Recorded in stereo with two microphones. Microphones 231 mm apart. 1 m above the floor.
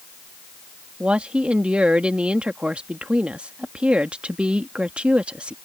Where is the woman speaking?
5° right (ahead or behind).